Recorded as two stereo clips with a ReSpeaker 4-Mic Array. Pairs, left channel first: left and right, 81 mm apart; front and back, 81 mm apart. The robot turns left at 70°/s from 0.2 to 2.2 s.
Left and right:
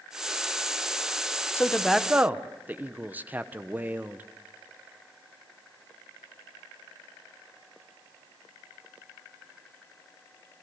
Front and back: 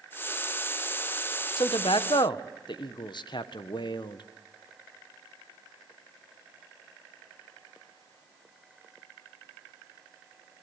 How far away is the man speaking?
About 1.1 m.